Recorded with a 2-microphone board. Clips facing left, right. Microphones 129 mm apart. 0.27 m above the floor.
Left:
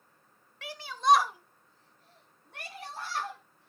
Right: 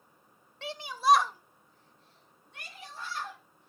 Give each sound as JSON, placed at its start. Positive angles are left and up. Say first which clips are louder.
{"t": 0.6, "sound": "a shout", "louder": "even", "side_deg": -30, "distance_m": 1.0}